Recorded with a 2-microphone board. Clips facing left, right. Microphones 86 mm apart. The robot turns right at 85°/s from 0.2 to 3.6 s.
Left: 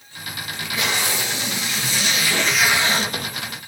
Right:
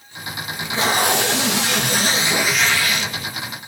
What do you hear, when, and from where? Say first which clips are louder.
0.5 s tape being pulled: right 5 dB; 170° right, 2.5 m; by 3.6 s 90° left, 2.5 m